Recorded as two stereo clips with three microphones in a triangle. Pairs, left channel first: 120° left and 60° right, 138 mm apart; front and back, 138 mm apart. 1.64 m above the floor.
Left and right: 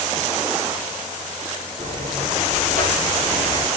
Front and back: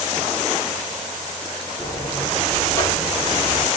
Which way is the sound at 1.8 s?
65° right.